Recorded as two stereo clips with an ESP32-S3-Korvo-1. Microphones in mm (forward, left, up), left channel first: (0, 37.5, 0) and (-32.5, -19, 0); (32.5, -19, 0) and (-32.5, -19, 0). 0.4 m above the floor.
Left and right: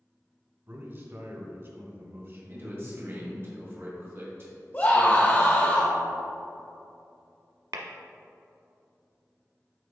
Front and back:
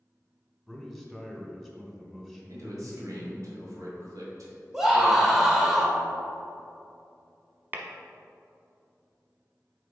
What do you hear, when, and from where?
0.7 s a man speaking: 95° right, 1.6 m
2.5 s a man speaking: 165° right, 1.8 m
4.7 s a scream: 100° left, 1.2 m
7.7 s tapping: 120° right, 0.9 m